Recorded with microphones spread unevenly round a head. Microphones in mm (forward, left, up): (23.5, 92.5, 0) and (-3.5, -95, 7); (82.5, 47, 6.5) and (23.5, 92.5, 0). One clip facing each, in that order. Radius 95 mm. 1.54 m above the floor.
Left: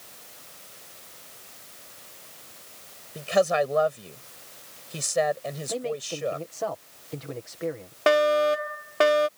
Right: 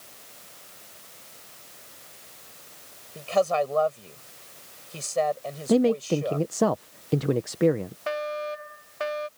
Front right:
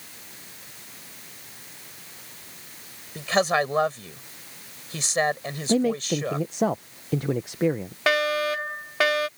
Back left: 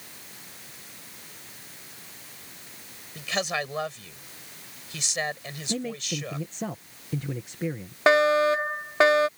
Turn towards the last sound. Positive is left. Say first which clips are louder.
# left 11 dB, back left 4 dB
turn(degrees=80)